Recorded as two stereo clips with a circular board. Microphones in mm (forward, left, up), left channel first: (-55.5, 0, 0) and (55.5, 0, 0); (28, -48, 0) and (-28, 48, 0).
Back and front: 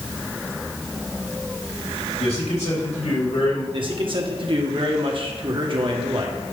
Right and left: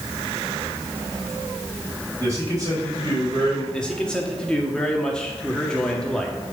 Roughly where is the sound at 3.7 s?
Ahead.